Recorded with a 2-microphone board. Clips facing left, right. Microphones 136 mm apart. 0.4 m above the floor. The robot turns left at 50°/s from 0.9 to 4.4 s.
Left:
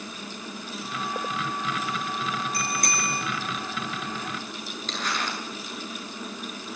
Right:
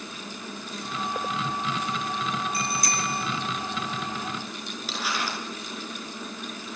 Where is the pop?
No pop in this recording.